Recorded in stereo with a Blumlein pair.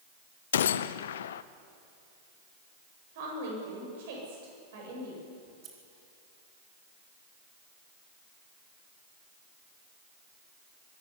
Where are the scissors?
30° right, 4.5 m.